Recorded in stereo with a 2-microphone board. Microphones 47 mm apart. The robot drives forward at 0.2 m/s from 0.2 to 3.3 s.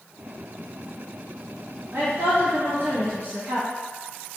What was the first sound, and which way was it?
A woman speaking, 60° right (ahead or behind).